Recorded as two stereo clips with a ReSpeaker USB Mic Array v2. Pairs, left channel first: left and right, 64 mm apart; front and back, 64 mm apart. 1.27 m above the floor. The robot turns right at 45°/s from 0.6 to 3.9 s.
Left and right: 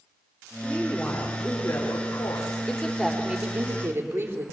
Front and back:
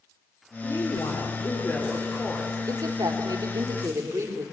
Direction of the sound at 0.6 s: 5° right.